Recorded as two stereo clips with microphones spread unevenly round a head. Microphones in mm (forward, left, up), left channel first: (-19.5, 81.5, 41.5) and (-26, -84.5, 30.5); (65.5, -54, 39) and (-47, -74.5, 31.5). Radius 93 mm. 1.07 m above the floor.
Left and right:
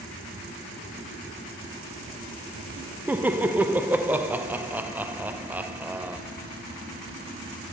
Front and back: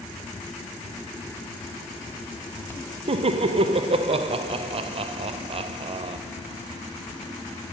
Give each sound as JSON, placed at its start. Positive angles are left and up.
{"t": 3.1, "sound": "laughter", "azimuth_deg": -165, "distance_m": 0.5}